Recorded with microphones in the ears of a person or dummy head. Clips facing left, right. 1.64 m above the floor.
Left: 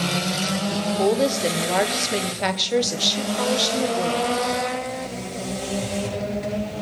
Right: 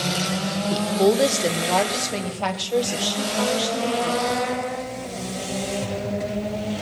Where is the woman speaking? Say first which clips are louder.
Right 3 dB; 25° right (ahead or behind), 0.9 m; by 4.4 s 40° left (ahead or behind), 2 m.